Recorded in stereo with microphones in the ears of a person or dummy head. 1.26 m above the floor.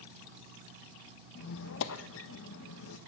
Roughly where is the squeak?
Left.